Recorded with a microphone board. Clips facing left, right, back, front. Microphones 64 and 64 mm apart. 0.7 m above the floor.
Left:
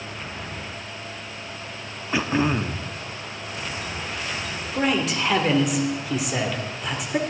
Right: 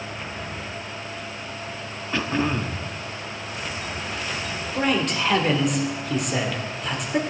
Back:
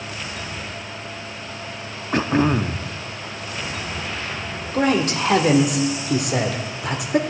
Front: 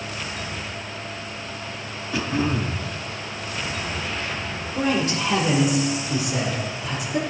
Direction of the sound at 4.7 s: Straight behind.